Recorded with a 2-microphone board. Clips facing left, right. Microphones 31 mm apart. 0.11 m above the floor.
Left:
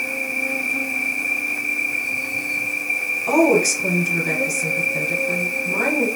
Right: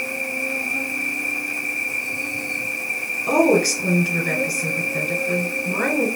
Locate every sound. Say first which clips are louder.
0.0 s an insect: left 2 dB; 10° left (ahead or behind), 1.6 m
3.3 s a woman speaking: even; 10° right (ahead or behind), 1.5 m